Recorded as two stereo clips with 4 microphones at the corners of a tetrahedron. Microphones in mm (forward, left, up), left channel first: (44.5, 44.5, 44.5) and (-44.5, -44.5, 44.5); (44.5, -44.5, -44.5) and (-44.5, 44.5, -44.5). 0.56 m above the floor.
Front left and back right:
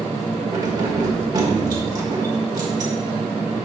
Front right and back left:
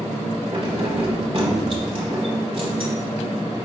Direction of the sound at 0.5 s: 170° left.